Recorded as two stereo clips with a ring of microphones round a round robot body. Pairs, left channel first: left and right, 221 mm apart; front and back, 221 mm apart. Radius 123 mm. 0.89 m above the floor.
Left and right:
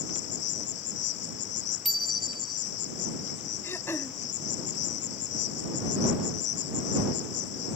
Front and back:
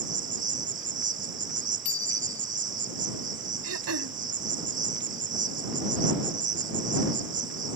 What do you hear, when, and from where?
0.0 s an insect: 130° left
1.9 s a bicycle bell: straight ahead
3.6 s throat clearing: 170° left